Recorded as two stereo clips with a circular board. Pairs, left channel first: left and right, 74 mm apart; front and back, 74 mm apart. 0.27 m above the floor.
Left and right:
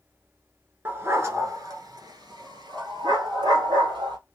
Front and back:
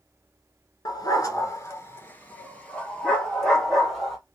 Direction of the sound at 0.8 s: 25° right.